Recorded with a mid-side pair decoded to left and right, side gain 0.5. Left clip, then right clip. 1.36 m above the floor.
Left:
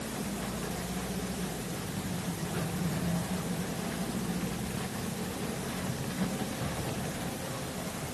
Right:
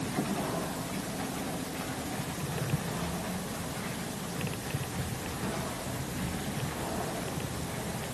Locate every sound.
Only background noise.